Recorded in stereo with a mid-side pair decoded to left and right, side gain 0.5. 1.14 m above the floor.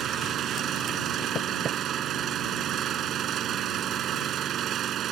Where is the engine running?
60° right.